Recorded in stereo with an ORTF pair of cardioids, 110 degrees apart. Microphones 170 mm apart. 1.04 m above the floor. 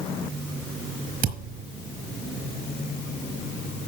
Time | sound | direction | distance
1.2 | a thud | 55° right | 5 m